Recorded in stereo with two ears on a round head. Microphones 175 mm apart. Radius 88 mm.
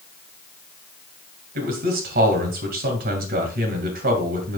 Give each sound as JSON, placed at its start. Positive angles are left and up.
{"t": 1.6, "sound": "a man speaking", "side_deg": -55, "distance_m": 2.5}